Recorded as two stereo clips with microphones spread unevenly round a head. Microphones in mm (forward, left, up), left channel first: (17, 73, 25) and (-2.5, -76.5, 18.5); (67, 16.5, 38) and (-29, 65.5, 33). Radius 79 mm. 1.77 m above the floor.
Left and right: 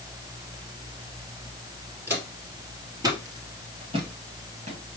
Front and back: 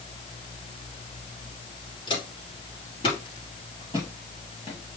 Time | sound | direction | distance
2.1 | footsteps | 20° right | 2.5 m